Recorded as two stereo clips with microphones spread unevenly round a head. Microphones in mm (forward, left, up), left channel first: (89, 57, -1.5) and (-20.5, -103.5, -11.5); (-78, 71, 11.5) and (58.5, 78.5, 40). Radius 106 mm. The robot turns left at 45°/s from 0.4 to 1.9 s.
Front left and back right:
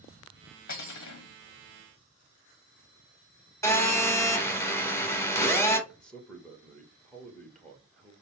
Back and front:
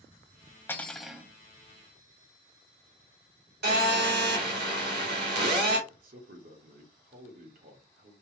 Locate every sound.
0.7 s cutlery clinking: 105° left, 1.0 m; by 1.3 s 75° left, 1.0 m
3.6 s a phone buzzing: 20° right, 2.5 m
5.9 s a man speaking: 30° right, 1.5 m